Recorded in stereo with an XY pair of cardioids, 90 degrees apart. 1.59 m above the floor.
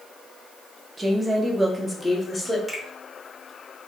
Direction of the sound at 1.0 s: 25° right.